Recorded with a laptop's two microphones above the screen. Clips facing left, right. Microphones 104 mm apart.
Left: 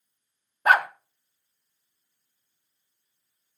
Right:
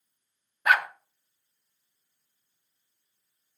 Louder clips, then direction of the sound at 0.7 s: Left 4 dB; 35° left (ahead or behind).